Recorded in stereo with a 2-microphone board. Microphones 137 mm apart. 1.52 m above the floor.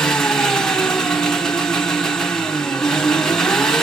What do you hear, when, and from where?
0.0 s an engine running: 5° left (ahead or behind), 0.9 m